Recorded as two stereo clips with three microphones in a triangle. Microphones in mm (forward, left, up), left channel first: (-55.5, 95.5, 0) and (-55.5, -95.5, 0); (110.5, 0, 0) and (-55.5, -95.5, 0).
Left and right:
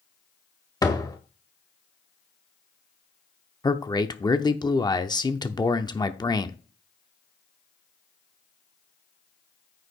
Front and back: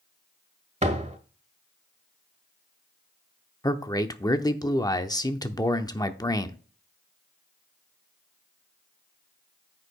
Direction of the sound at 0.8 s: 160° left.